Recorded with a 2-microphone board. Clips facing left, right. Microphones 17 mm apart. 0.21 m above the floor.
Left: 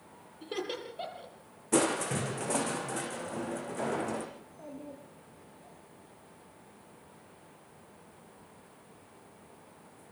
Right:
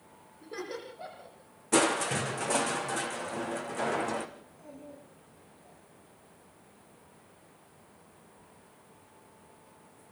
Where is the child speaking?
75° left (ahead or behind), 5 m.